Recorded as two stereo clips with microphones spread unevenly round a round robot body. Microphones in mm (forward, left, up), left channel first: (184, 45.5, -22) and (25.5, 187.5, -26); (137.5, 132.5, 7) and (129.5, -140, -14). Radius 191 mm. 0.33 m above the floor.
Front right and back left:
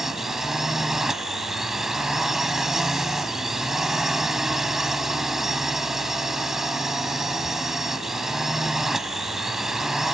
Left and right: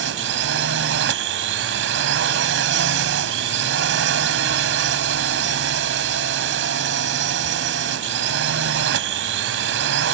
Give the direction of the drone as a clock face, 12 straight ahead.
4 o'clock.